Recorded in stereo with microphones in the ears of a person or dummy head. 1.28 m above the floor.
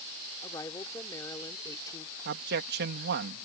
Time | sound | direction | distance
0.4 | a woman speaking | 20° left (ahead or behind) | ?
2.2 | a man speaking | 65° right (ahead or behind) | ?